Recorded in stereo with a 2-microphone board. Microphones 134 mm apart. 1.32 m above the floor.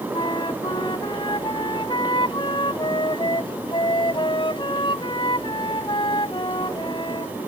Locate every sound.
0.1 s a flute: 40° left (ahead or behind)